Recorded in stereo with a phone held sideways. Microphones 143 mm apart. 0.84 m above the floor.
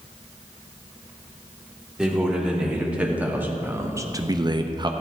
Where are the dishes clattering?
I don't hear dishes clattering.